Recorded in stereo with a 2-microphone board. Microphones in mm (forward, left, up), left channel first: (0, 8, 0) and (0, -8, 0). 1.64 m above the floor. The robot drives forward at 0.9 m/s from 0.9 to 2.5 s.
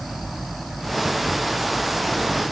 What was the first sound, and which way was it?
Only background noise.